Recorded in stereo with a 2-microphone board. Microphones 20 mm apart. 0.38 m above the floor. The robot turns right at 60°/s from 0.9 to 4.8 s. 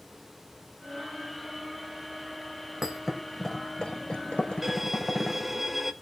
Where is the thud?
15° right (ahead or behind), 4 m; by 5.6 s 75° left (ahead or behind), 4 m.